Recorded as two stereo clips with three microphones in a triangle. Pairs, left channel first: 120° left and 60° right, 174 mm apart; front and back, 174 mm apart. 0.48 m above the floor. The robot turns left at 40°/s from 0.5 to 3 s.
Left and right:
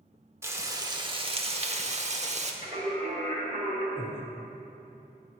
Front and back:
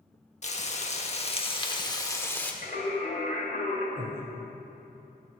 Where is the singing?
15° right, 1.6 m; by 3.9 s 30° right, 1.6 m.